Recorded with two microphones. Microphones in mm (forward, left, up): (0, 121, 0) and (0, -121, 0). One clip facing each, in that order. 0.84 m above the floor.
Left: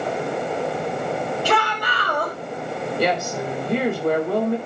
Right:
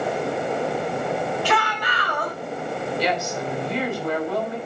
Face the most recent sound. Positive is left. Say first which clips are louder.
# left 5 dB
turn(degrees=60)  # may be behind; listen again after turning